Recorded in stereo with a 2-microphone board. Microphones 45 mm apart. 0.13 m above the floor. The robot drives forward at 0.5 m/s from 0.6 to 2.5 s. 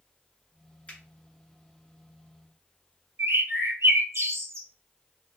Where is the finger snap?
25° left (ahead or behind), 1.5 m.